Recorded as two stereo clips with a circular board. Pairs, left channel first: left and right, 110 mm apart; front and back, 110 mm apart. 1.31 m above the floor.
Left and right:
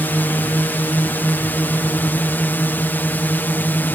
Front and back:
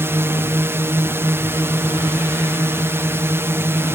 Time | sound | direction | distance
0.0 | a drone | 145° left | ?